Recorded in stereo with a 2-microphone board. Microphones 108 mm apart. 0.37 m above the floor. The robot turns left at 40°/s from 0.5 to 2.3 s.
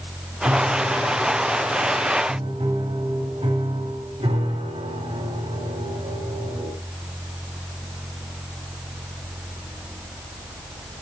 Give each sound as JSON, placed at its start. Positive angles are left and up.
{"t": 0.5, "sound": "a piano", "azimuth_deg": -40, "distance_m": 1.5}